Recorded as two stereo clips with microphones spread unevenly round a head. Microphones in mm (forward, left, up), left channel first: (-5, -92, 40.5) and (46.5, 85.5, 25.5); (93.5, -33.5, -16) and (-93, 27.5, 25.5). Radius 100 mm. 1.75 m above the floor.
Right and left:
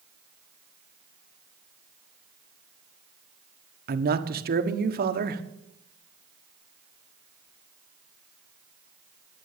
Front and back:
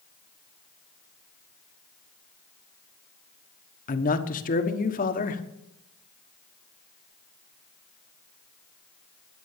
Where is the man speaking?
35° left, 1.4 m.